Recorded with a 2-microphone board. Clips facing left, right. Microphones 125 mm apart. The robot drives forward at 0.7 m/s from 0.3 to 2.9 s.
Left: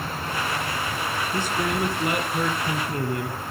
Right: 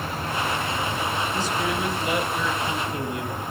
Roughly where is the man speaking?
Left.